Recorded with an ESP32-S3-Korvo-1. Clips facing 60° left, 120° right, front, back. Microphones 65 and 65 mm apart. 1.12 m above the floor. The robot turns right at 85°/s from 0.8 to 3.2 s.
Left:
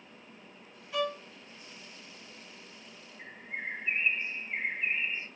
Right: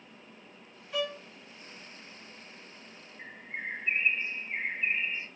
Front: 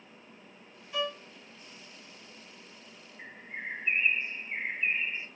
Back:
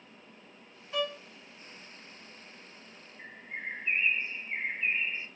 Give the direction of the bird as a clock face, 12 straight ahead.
2 o'clock.